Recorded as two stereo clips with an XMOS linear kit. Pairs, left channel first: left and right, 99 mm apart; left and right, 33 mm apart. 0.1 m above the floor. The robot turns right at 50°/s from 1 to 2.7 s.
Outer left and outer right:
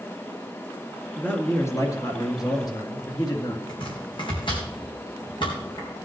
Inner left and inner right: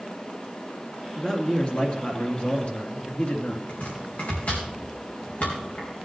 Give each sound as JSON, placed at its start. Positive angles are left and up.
{"t": 1.2, "sound": "a man speaking", "azimuth_deg": 20, "distance_m": 2.0}
{"t": 3.7, "sound": "chopping", "side_deg": 60, "distance_m": 4.0}